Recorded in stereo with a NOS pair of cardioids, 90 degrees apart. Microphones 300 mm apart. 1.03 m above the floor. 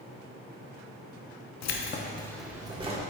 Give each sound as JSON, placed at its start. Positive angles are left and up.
{"t": 1.6, "sound": "keys jangling", "azimuth_deg": 65, "distance_m": 0.9}